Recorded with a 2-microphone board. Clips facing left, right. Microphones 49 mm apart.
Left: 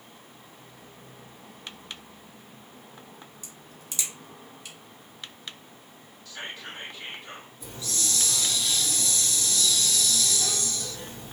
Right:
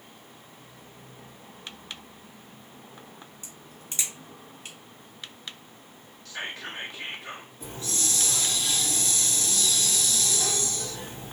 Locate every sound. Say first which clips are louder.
3.4 s a crack: right 1 dB; 45° right (ahead or behind), 1.2 m
6.2 s whispering: right 3 dB; 80° right, 1.5 m
7.6 s a hiss: right 1 dB; 55° right (ahead or behind), 2 m